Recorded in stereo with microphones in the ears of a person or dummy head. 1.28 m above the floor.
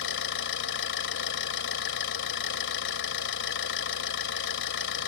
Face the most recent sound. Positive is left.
turn(degrees=60)  # may be behind; listen again after turning